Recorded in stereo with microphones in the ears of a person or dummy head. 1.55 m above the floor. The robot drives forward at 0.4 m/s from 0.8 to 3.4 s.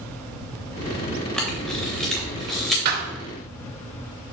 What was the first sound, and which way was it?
A camera shutter, centre (ahead or behind).